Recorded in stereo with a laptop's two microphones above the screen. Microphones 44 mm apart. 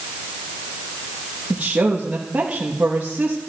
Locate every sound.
1.5 s a woman speaking: 40° right (ahead or behind), 1.1 m